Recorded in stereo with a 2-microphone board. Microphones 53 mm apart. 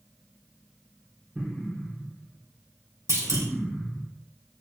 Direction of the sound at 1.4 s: 25° right (ahead or behind).